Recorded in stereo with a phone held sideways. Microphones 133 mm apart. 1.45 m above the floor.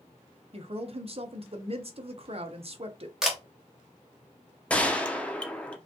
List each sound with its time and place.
0.5 s a woman speaking: 45° right (ahead or behind), 0.7 m
3.2 s a camera shutter: 5° right (ahead or behind), 1.1 m
4.7 s a gunshot: 10° left (ahead or behind), 0.6 m